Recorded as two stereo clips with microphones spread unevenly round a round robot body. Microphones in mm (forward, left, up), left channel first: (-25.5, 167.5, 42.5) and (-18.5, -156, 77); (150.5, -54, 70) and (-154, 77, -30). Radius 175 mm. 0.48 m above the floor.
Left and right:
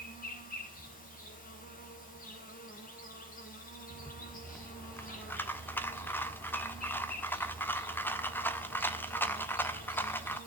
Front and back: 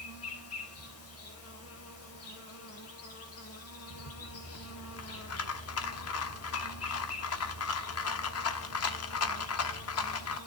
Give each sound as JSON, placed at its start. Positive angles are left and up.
{"t": 0.0, "sound": "an insect", "azimuth_deg": 30, "distance_m": 4.0}
{"t": 4.0, "sound": "a rattle", "azimuth_deg": 20, "distance_m": 1.3}